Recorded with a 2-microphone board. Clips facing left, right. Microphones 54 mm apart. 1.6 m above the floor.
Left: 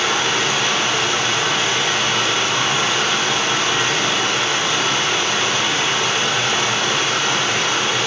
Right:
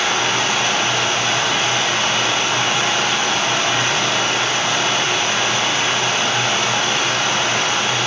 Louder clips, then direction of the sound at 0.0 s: Even; 50° right (ahead or behind).